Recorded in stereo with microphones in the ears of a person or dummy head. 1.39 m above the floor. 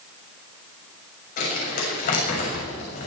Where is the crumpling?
45° left (ahead or behind), 6.5 m.